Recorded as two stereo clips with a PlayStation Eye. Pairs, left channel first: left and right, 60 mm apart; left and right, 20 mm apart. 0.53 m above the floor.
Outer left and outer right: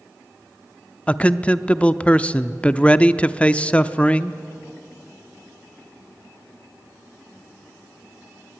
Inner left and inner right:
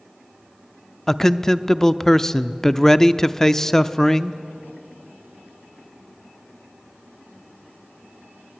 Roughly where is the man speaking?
Left.